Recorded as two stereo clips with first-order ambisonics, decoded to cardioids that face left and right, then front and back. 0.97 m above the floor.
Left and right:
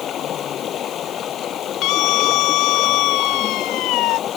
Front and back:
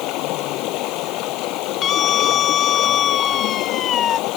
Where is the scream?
55° left.